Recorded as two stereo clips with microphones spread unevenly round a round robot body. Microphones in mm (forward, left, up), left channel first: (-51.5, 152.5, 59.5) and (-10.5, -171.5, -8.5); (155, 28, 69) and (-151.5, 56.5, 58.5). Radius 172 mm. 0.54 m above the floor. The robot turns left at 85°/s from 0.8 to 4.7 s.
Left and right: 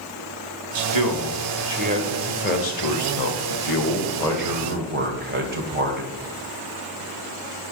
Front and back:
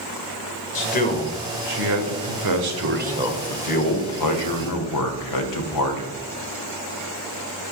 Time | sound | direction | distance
0.8 | a man speaking | 55° right | 1.7 m